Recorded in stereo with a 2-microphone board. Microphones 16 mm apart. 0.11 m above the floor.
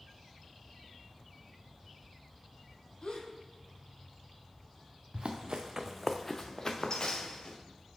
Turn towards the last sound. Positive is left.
turn(degrees=50)  # may be behind; listen again after turning